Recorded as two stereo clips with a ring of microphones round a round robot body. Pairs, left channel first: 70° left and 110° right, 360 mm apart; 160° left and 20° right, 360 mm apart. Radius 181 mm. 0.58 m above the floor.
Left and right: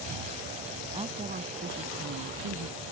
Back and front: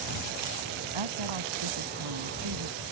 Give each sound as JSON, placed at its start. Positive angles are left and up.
{"t": 0.9, "sound": "a woman speaking", "azimuth_deg": -35}